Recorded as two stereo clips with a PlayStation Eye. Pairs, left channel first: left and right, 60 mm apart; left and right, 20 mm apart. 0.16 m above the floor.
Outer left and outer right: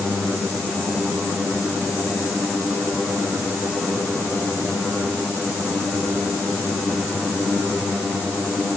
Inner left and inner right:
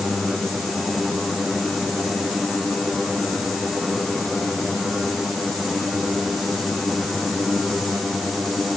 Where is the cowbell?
No cowbell in this recording.